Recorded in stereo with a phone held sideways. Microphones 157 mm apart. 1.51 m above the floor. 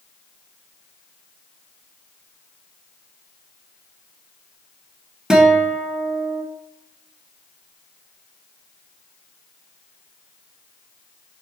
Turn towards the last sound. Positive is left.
turn(degrees=-5)  # may be behind; listen again after turning